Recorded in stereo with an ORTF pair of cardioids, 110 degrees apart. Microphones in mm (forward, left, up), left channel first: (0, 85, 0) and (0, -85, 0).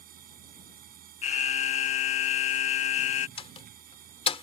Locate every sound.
0.0 s a machine running: 60° right
1.2 s an alarm: 45° left
3.4 s a door slam: 35° left